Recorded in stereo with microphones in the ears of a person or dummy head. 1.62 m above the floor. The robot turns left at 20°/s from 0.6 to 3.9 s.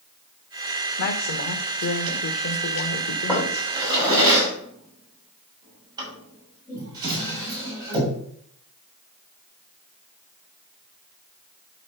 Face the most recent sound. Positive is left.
turn(degrees=-20)  # may be behind; listen again after turning